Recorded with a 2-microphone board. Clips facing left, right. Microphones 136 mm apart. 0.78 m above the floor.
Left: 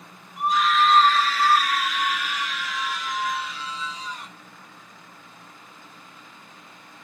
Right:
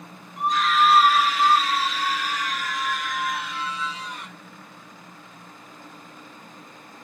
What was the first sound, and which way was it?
A scream, 5° left (ahead or behind).